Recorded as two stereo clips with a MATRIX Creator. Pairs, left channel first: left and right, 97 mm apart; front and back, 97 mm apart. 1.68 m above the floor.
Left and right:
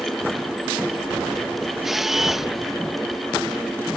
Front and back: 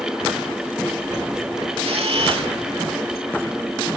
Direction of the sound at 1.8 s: 175° right.